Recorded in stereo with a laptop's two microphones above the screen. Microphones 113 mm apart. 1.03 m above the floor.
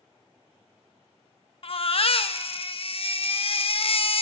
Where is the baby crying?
55° left (ahead or behind), 0.6 m.